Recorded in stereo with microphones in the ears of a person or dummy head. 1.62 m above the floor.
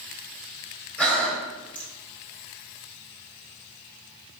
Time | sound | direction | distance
1.0 | breathing | 5° left (ahead or behind) | 0.9 m